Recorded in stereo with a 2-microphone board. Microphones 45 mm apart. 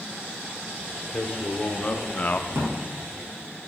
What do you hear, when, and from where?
1.1 s a man speaking: 25° left (ahead or behind), 1.9 m; by 2.4 s 35° left (ahead or behind), 0.7 m
2.5 s a drawer: 70° right (ahead or behind), 4 m